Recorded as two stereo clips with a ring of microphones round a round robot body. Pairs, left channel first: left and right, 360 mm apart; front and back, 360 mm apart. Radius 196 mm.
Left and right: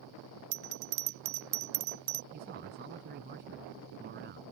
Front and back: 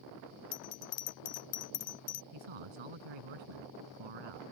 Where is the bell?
50° right.